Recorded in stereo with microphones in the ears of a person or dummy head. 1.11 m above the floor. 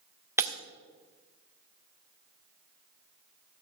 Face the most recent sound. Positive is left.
turn(degrees=-10)  # may be behind; listen again after turning